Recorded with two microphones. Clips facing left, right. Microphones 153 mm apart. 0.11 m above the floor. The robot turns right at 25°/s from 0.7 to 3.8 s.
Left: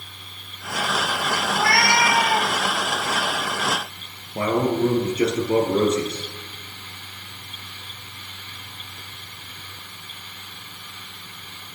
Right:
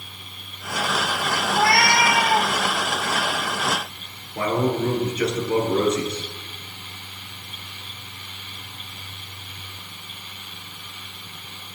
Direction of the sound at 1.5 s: 30° right (ahead or behind).